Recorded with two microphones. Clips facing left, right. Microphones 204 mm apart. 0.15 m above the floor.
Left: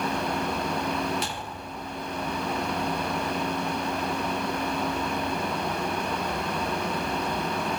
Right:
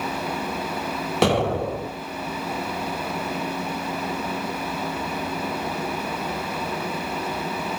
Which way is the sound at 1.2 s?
75° right (ahead or behind).